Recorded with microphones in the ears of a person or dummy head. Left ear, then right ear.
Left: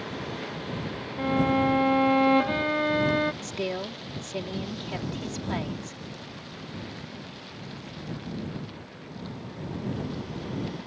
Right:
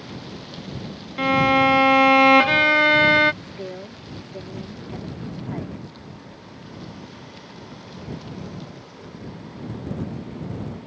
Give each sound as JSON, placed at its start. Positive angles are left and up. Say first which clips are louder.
{"t": 1.2, "sound": "a violin", "louder": "right 8 dB", "side_deg": -65}
{"t": 3.4, "sound": "a woman speaking", "louder": "left 4 dB", "side_deg": 65}